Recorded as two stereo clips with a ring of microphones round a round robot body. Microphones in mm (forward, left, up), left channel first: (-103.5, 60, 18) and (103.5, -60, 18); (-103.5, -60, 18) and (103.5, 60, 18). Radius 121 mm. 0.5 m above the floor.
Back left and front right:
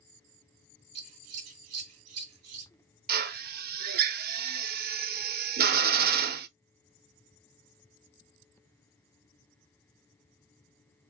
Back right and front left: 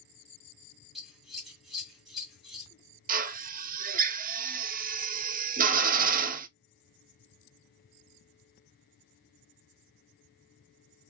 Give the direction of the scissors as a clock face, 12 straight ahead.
2 o'clock.